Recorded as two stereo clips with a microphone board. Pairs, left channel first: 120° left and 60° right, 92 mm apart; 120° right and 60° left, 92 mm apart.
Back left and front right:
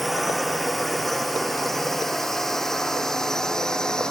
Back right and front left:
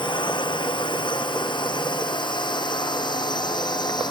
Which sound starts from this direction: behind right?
A drone, at 0.0 s.